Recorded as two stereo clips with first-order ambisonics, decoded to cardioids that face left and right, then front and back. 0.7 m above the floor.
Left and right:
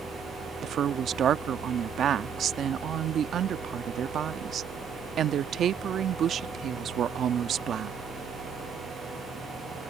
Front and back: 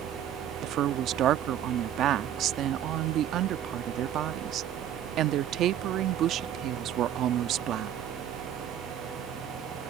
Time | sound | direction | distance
0.6 | a woman speaking | 140° right | ?